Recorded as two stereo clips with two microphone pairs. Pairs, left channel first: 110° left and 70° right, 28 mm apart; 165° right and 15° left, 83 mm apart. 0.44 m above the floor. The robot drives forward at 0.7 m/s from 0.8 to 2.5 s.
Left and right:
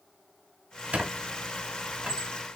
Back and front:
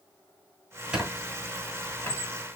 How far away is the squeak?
About 1.1 m.